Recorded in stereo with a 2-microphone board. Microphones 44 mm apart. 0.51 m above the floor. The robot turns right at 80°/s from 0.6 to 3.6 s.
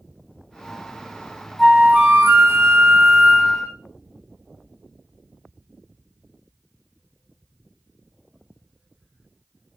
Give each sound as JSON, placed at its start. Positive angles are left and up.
{"t": 1.6, "sound": "a flute", "azimuth_deg": -175, "distance_m": 0.7}